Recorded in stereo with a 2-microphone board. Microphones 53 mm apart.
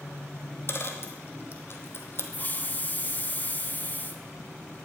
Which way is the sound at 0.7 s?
50° left (ahead or behind).